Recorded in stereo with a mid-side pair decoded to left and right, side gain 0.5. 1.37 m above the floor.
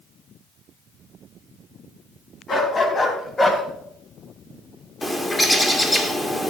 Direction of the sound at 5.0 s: 15° left.